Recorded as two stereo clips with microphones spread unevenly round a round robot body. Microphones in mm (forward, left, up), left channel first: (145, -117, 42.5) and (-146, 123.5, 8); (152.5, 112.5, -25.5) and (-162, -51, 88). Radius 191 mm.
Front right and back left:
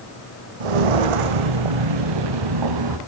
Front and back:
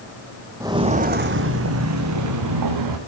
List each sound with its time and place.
0.6 s footsteps: 130° left, 1.6 m; by 3.0 s 175° left, 3.5 m